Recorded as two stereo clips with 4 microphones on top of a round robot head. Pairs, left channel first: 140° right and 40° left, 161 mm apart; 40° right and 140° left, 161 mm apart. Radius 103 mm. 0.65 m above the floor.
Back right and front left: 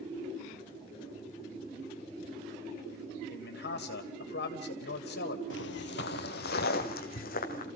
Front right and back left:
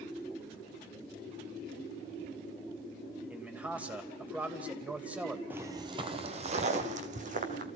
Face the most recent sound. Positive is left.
turn(degrees=-175)